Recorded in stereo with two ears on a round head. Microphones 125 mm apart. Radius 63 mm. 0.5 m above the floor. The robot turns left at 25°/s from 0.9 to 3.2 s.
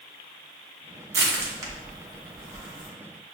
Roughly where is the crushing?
Centre.